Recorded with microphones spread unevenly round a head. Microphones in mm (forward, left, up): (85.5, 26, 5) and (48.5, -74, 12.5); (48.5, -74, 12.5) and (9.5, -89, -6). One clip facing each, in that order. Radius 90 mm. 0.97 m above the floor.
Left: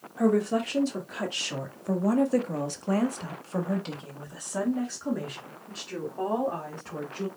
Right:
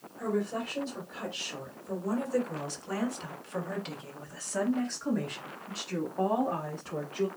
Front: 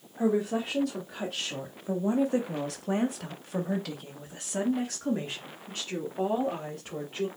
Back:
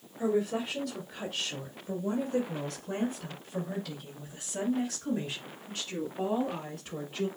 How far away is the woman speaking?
About 2.0 m.